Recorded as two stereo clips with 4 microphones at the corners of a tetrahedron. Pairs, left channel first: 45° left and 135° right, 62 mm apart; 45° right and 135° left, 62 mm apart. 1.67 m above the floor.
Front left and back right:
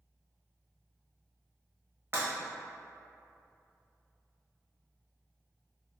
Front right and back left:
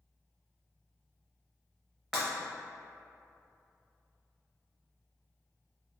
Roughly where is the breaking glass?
Behind right.